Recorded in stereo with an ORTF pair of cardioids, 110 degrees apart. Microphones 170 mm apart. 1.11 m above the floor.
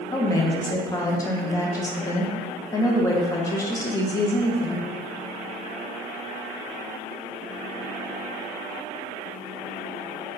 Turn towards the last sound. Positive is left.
turn(degrees=20)